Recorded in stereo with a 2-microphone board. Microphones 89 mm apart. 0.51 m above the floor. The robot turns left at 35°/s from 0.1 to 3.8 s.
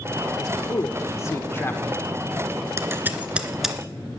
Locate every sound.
0.4 s a man speaking: 80° left, 1.2 m; by 1.8 s 30° left, 1.2 m
2.8 s scissors: 35° right (ahead or behind), 1.2 m; by 3.8 s centre (ahead or behind), 1.2 m